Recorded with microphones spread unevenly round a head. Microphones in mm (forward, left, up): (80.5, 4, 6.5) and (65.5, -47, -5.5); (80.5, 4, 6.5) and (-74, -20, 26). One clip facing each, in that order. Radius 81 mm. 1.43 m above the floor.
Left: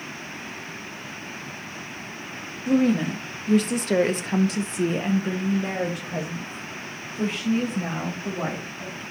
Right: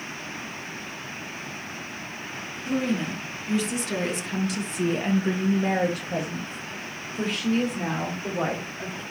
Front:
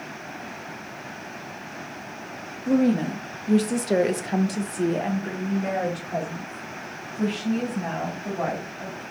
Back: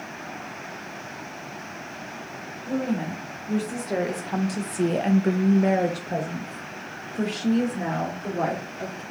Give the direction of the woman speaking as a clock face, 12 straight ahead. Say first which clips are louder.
Left 6 dB, front 6 dB; 11 o'clock.